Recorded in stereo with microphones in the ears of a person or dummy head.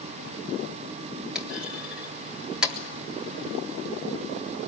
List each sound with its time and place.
1.4 s a clunk: centre (ahead or behind), 3.5 m